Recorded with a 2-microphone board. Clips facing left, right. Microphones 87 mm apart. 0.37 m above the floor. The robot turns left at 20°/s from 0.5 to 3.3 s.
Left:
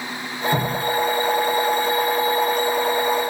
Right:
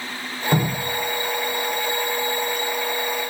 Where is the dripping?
55° right (ahead or behind), 4.5 m; by 2.7 s 80° right, 4.5 m.